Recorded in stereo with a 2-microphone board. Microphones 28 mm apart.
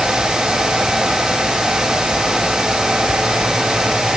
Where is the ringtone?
I don't hear a ringtone.